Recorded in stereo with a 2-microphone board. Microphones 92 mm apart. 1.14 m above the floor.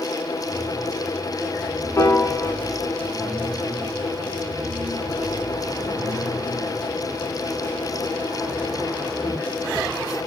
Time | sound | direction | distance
2.0 | a piano | 35° left (ahead or behind) | 0.6 m